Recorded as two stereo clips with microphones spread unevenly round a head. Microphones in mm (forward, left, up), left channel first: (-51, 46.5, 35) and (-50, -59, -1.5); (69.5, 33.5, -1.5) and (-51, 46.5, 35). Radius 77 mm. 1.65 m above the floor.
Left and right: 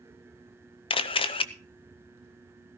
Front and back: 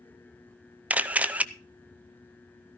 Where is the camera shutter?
105° left, 0.7 m.